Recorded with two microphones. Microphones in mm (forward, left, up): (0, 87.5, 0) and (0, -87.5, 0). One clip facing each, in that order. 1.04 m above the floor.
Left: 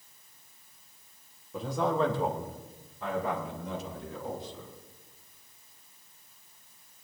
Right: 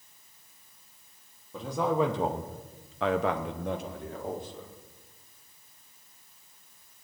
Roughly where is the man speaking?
Centre.